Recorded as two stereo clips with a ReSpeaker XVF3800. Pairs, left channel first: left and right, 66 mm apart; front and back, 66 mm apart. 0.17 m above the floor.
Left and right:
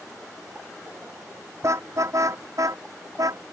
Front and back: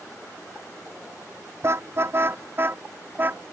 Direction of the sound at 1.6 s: 130° right.